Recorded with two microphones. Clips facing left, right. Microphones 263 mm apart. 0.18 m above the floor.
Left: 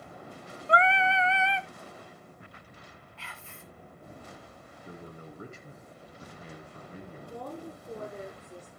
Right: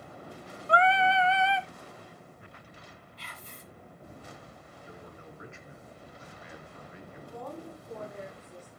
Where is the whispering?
40° right (ahead or behind), 1.8 m.